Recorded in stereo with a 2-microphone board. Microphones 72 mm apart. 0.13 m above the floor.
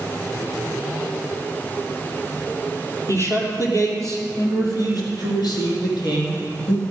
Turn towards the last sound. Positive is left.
turn(degrees=75)  # may be behind; listen again after turning